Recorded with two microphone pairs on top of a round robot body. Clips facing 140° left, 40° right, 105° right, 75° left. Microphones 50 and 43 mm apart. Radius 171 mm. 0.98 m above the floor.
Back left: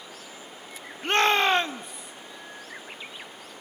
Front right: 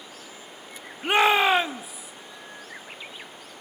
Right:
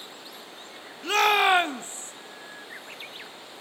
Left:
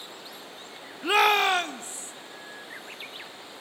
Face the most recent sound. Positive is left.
turn(degrees=-130)